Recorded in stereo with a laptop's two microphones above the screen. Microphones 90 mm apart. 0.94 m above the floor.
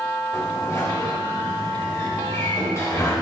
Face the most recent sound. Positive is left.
turn(degrees=35)  # may be behind; listen again after turning